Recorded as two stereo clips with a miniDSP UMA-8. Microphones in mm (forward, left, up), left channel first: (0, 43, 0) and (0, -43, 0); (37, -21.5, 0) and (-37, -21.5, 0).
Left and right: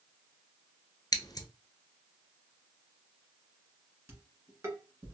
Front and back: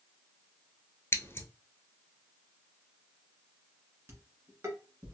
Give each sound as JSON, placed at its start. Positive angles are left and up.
{"t": 1.1, "sound": "scissors", "azimuth_deg": 50, "distance_m": 0.6}
{"t": 4.1, "sound": "dishes clattering", "azimuth_deg": -140, "distance_m": 1.4}